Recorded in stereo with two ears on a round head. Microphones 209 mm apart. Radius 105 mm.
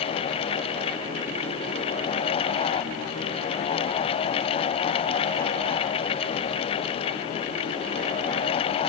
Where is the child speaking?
No child speaking in this recording.